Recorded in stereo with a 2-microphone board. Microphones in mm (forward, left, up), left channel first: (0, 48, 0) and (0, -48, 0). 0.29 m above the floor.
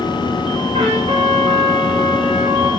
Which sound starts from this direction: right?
A trumpet, at 0.7 s.